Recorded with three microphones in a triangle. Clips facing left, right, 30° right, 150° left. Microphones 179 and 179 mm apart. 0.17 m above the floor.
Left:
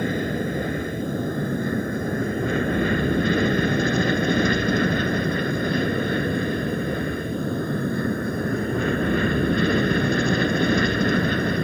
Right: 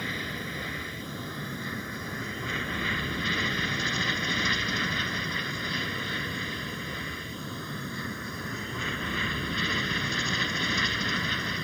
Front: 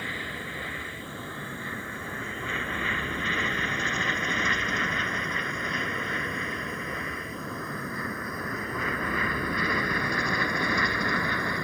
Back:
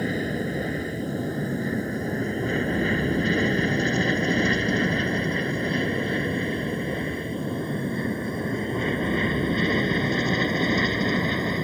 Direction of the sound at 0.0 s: 115° left.